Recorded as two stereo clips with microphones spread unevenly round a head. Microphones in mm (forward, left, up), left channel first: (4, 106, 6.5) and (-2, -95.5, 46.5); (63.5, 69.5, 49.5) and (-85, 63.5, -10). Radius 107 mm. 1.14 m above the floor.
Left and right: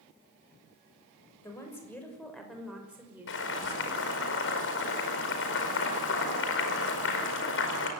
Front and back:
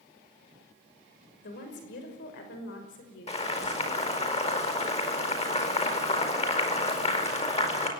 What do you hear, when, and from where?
1.4 s a woman speaking: 10° left, 6 m; by 4.3 s 25° right, 5.5 m
3.3 s boiling: 55° left, 5 m